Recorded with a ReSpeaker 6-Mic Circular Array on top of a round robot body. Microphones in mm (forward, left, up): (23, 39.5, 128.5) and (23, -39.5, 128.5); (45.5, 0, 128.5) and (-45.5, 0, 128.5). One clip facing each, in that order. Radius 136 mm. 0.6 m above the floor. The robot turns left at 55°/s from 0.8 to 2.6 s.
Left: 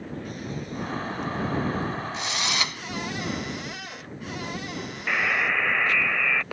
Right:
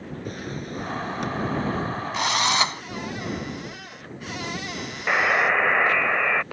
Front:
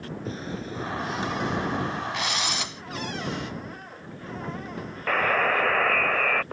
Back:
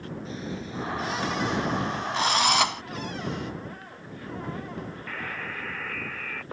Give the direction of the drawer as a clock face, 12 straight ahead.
2 o'clock.